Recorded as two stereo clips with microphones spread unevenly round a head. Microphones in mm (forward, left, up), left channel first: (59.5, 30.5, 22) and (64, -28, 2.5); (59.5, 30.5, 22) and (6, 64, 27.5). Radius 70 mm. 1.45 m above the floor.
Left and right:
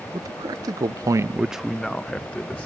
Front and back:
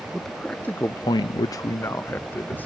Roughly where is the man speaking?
Behind right.